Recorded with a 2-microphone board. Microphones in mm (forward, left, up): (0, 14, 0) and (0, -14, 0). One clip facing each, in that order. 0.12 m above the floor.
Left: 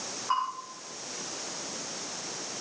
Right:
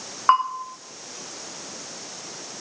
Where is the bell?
80° right, 5 m.